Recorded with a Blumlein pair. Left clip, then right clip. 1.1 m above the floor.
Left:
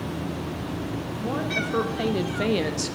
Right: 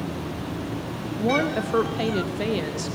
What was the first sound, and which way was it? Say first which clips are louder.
A woman speaking: right 5 dB; 25° right.